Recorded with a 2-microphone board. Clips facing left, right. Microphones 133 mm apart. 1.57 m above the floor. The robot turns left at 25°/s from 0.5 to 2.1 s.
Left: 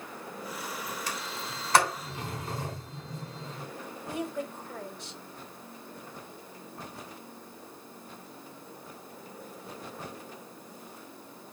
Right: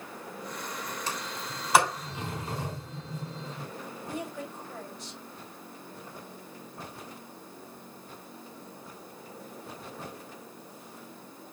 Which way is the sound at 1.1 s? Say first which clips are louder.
Right 1 dB; 25° right (ahead or behind).